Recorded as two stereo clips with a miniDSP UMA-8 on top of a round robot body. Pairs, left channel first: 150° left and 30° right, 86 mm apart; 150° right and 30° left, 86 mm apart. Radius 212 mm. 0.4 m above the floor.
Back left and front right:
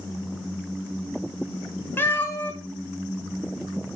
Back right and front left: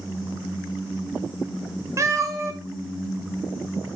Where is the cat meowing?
85° left, 1.4 m.